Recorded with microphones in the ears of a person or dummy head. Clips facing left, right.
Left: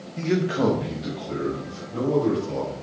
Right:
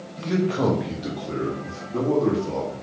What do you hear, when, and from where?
0.2 s a man speaking: 40° left (ahead or behind), 0.7 m; by 2.7 s 75° right (ahead or behind), 2 m